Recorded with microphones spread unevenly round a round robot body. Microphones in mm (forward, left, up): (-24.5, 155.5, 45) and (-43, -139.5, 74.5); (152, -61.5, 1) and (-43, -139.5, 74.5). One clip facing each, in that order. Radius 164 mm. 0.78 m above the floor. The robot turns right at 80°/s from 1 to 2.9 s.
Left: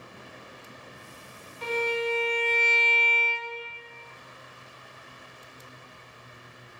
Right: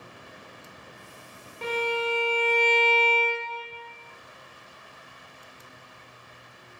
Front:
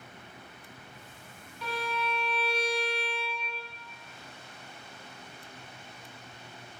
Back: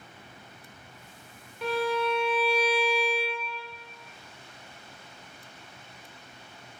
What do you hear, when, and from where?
1.6 s a violin: 115° right, 0.7 m; by 3.6 s 10° right, 0.7 m